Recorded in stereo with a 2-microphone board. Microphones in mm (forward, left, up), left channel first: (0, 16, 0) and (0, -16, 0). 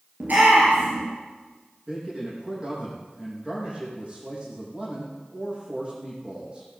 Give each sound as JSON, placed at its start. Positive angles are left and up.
{"t": 0.2, "sound": "a shout", "side_deg": -60, "distance_m": 3.0}
{"t": 1.9, "sound": "a man speaking", "side_deg": -25, "distance_m": 6.0}